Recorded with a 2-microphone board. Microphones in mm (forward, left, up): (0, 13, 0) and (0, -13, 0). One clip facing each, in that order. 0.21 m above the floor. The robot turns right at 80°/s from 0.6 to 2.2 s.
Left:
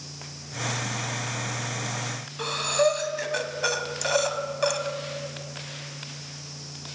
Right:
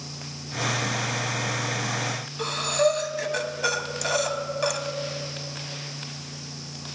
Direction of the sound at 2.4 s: 5° left (ahead or behind).